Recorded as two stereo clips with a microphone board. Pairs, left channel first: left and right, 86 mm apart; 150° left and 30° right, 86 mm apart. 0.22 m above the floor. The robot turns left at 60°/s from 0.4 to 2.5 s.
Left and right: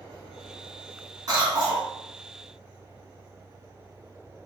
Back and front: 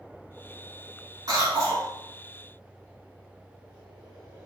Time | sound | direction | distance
1.3 | a cough | 55° right | 1.9 m